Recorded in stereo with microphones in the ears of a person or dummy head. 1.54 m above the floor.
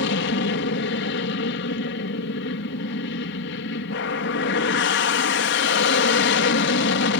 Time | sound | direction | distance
0.0 | an aircraft | 65° left (ahead or behind) | ?